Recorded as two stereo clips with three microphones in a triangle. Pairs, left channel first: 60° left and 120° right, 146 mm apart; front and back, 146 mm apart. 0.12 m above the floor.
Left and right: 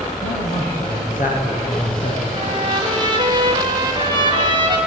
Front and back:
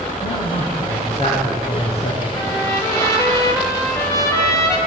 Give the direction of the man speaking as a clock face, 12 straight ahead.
11 o'clock.